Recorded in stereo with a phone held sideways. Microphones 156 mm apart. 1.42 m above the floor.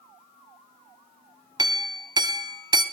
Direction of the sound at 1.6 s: 25° right (ahead or behind).